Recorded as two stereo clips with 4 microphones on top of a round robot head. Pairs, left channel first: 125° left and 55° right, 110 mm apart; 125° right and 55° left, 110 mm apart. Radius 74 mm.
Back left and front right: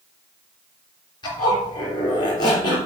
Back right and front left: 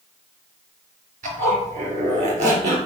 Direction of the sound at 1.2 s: 75° left.